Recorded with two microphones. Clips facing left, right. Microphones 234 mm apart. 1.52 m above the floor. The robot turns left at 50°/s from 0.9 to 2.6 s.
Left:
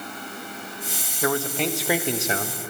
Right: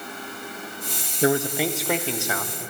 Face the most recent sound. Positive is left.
turn(degrees=140)